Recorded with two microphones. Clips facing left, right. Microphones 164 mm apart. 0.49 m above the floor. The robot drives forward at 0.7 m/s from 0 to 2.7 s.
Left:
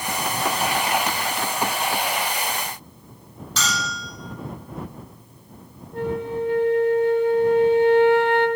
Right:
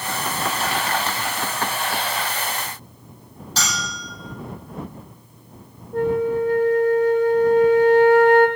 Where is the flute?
40° right (ahead or behind), 1.0 m.